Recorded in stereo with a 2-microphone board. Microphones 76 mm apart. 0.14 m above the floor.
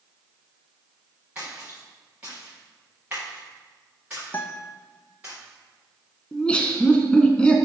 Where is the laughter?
15° left (ahead or behind), 1.1 m.